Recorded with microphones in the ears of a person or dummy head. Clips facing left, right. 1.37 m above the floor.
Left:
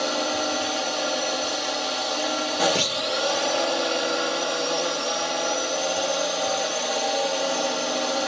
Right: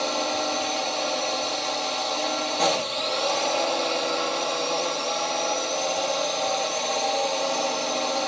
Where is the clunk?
50° left (ahead or behind).